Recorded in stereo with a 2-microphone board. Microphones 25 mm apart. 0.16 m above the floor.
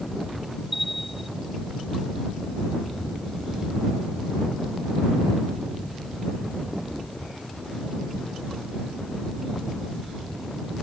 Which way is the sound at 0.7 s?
10° right (ahead or behind).